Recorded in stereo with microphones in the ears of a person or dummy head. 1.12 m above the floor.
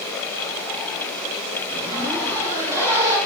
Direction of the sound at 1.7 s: 20° right (ahead or behind).